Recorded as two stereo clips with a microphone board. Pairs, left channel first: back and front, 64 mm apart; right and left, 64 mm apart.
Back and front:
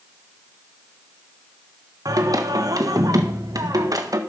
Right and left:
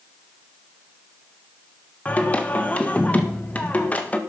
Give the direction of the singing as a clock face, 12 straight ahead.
1 o'clock.